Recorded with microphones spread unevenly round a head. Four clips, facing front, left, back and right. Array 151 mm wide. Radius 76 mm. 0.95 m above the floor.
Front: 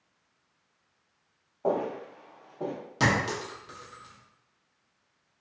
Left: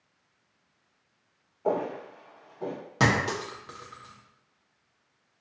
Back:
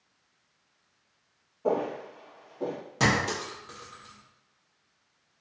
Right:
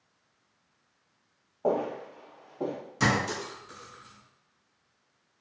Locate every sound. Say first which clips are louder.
1.6 s footsteps: even, back 1 dB; 55° right, 2.0 m; by 2.8 s 80° right, 1.6 m
3.0 s a clink: left 2 dB, even; 95° left, 0.8 m